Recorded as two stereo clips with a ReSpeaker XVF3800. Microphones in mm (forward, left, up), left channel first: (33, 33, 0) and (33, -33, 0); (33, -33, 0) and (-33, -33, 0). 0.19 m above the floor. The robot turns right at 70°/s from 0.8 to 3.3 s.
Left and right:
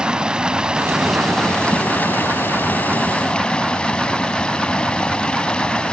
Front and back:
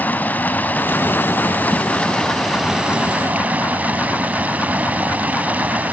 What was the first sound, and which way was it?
Running water, 25° right.